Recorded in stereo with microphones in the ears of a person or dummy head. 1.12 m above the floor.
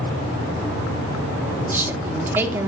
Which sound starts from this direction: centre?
A woman speaking, at 1.7 s.